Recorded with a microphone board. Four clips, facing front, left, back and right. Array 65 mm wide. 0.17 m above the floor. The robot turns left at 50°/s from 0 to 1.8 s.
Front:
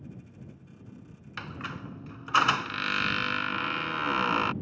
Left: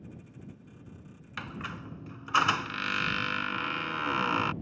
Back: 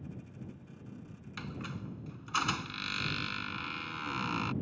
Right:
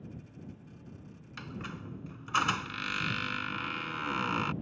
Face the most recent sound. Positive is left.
turn(degrees=25)